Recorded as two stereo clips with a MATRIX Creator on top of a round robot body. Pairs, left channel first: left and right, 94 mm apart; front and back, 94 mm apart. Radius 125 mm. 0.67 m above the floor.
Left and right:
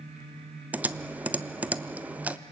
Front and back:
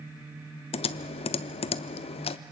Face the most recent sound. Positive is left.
turn(degrees=-15)